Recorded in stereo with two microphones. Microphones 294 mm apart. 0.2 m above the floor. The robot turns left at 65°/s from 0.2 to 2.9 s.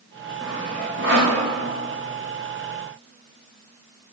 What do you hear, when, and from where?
0.4 s sawing: centre (ahead or behind), 2.5 m; by 1.4 s 60° right (ahead or behind), 2.5 m